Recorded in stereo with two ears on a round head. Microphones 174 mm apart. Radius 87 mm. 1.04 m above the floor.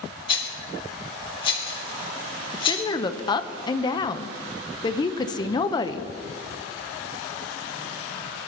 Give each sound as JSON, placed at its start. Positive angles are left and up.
{"t": 0.3, "sound": "a rattle", "side_deg": 25, "distance_m": 2.0}
{"t": 2.5, "sound": "a woman speaking", "side_deg": 20, "distance_m": 0.6}